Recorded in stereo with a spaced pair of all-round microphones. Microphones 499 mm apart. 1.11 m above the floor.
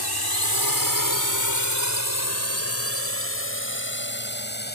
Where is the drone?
50° left (ahead or behind); by 4.8 s 20° left (ahead or behind).